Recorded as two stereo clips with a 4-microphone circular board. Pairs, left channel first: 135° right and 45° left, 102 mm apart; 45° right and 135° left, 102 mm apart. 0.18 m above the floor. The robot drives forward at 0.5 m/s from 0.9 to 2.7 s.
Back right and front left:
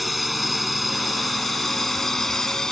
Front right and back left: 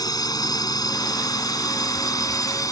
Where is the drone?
45° right; by 2.7 s 55° right.